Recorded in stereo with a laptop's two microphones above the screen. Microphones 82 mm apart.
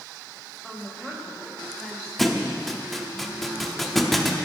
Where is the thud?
Centre (ahead or behind), 0.8 m.